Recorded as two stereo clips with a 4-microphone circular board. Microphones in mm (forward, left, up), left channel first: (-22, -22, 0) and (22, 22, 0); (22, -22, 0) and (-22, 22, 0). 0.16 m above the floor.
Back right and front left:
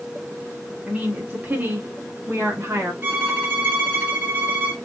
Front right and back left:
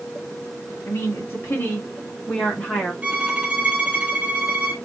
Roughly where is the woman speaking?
Ahead.